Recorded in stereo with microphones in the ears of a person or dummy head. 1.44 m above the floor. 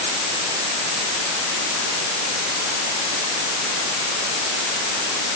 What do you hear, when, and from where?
Only background noise.